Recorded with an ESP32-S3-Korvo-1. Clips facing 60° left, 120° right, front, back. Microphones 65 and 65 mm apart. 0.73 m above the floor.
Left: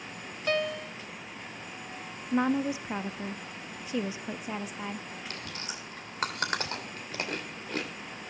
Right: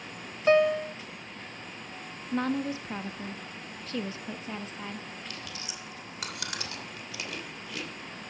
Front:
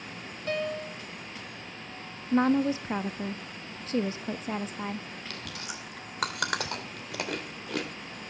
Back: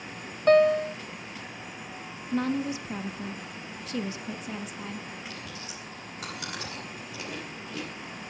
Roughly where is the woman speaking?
Ahead.